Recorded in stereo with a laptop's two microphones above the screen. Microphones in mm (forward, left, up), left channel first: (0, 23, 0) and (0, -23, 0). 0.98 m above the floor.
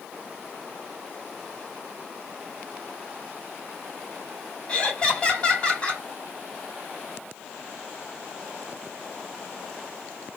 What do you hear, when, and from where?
4.7 s laughter: 25° left (ahead or behind), 3 m